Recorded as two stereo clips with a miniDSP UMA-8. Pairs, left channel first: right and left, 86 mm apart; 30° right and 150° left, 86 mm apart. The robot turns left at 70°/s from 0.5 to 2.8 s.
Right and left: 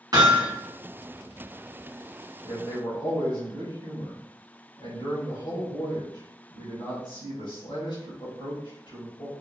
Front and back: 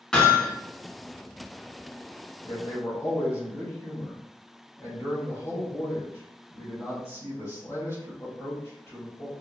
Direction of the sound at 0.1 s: 50° left.